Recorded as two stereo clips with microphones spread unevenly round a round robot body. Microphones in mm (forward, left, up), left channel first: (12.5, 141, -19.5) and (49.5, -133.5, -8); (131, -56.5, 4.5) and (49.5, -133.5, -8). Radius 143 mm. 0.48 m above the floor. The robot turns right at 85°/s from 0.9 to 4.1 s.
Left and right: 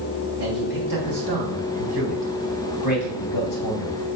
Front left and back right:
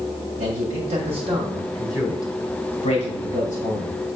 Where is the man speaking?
130° right, 3 m; by 3.9 s 130° left, 3 m.